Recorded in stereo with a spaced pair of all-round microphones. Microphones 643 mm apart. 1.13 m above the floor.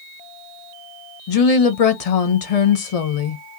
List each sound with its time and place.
1.3 s a woman speaking: 60° left (ahead or behind), 0.8 m